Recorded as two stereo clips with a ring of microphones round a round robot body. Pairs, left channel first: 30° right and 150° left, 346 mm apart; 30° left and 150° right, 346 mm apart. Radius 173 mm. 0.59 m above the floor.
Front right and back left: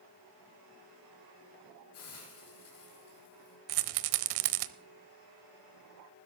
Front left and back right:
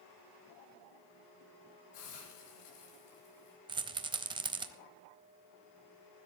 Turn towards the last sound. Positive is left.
turn(degrees=135)